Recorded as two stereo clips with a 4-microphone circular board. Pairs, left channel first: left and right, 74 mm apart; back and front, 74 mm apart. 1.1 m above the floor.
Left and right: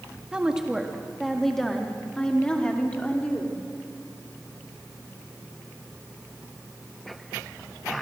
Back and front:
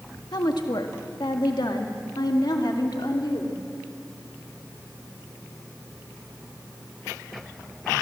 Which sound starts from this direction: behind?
A woman speaking, at 0.3 s.